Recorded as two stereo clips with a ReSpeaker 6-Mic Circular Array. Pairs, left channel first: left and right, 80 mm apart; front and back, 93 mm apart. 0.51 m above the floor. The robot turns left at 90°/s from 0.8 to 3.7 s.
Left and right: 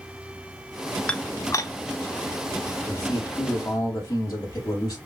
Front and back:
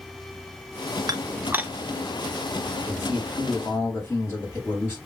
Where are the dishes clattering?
160° left, 0.5 m; by 1.7 s 105° left, 0.5 m.